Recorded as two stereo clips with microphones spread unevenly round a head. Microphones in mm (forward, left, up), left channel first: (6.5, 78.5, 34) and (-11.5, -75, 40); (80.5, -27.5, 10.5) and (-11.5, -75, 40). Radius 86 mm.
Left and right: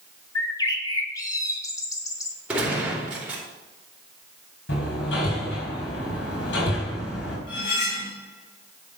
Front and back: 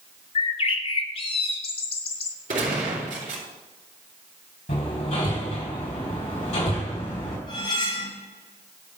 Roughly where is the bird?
Ahead.